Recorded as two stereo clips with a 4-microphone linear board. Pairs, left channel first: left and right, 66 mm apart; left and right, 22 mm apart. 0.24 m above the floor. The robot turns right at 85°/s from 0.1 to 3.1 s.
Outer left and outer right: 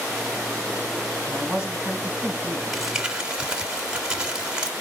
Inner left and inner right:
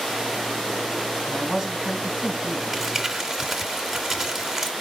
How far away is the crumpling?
About 1.2 m.